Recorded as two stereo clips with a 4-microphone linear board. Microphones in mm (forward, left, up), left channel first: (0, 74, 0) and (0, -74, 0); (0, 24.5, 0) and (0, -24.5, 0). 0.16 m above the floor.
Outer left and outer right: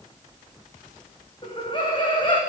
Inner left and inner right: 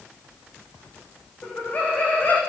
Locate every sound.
1.4 s laughter: 35° left (ahead or behind), 9 m